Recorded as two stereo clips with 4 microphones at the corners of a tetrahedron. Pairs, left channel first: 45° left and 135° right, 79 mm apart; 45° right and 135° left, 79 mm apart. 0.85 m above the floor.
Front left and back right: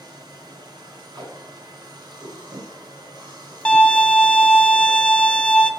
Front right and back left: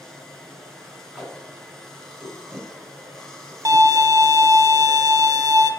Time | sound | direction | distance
0.0 | running water | 125° right | 2.0 m
1.1 | tape being pulled | 140° right | 3.5 m
3.6 | a violin | 120° left | 0.6 m